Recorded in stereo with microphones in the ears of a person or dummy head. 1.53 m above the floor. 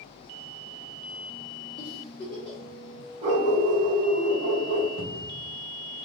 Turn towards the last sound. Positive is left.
turn(degrees=50)  # may be behind; listen again after turning